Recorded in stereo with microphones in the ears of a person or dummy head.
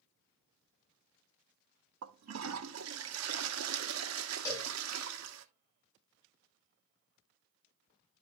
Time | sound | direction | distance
2.0 | a toilet flushing | 75° right (ahead or behind) | 1.3 m
4.5 | a cowbell | 25° left (ahead or behind) | 4.5 m